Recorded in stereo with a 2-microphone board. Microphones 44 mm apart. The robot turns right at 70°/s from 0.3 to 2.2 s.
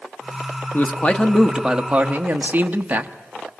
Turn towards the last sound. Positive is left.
turn(degrees=-135)